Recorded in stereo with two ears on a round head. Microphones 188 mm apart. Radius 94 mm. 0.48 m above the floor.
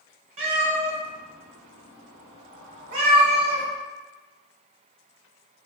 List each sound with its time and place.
0.4 s a cat meowing: 40° right (ahead or behind), 1.1 m